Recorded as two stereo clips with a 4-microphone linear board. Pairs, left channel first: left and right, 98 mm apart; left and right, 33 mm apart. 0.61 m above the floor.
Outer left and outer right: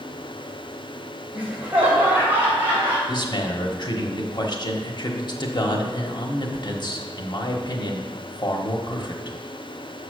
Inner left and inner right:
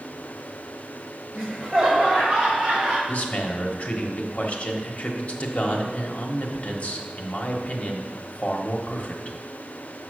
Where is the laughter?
10° right (ahead or behind), 3 m; by 3.0 s 20° right (ahead or behind), 4 m.